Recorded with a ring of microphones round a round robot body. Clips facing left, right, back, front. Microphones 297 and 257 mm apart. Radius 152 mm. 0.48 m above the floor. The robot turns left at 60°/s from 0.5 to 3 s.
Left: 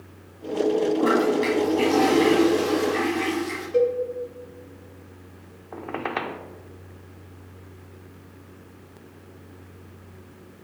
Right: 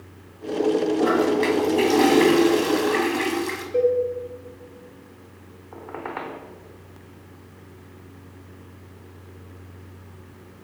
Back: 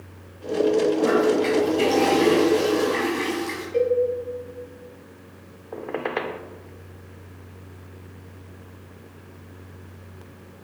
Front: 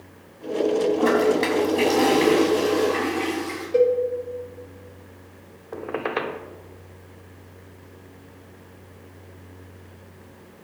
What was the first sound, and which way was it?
A toilet flushing, 15° left.